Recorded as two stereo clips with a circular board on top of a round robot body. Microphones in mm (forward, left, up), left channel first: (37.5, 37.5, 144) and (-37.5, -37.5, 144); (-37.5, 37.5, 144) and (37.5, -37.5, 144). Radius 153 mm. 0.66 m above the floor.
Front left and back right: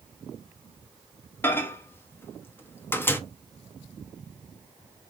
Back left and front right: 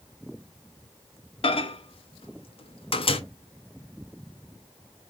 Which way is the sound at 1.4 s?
115° left.